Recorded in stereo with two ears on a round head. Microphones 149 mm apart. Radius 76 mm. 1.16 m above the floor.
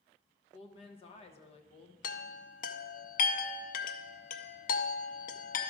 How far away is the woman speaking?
About 0.9 m.